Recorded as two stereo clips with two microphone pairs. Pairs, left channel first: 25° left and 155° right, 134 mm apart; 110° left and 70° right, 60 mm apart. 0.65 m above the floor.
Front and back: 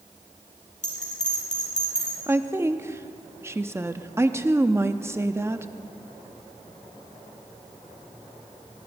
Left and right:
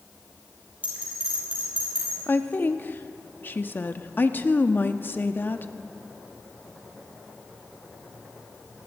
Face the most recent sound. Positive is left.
turn(degrees=140)